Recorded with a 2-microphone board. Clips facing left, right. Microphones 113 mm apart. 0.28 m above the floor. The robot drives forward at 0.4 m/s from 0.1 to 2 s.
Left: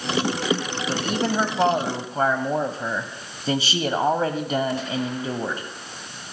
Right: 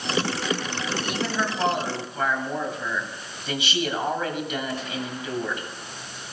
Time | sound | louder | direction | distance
0.9 | a man speaking | left 6 dB | 40° left (ahead or behind) | 1.2 m